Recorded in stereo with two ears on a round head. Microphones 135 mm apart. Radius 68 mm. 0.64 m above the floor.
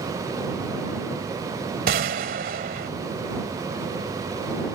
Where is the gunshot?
65° right (ahead or behind).